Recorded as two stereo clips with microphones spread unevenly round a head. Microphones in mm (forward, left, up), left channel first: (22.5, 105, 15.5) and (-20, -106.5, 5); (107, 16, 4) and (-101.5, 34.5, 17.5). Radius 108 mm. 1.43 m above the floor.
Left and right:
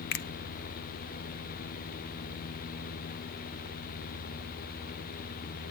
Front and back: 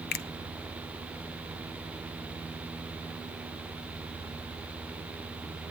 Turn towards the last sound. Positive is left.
turn(degrees=40)